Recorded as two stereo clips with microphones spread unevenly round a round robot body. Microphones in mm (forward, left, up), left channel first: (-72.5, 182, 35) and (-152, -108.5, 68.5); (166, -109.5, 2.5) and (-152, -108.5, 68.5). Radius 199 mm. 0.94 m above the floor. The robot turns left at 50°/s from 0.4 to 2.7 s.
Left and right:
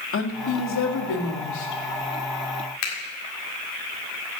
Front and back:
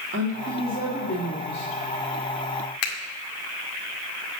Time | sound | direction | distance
0.1 | a woman speaking | 115° left | 2.5 m
2.8 | a finger snap | 30° left | 1.8 m